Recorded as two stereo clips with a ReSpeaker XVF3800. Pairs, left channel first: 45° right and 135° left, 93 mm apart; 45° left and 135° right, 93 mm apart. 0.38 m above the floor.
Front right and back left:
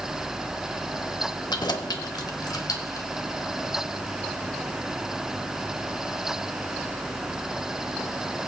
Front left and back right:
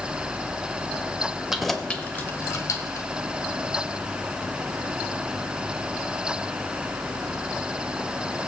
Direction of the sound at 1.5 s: 55° right.